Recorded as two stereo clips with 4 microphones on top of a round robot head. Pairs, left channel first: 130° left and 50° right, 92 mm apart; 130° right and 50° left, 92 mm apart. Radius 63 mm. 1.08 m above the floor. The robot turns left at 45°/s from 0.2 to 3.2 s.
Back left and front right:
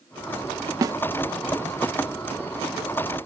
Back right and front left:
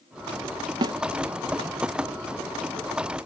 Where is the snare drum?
5° left, 0.7 m; by 1.0 s straight ahead, 0.7 m.